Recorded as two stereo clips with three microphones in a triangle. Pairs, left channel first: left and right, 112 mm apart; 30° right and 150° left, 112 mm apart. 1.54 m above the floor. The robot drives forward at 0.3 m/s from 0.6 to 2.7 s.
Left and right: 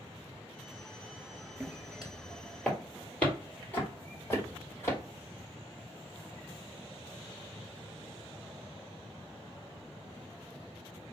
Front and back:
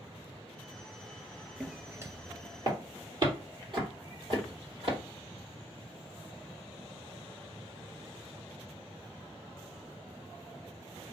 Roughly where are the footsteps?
Behind right.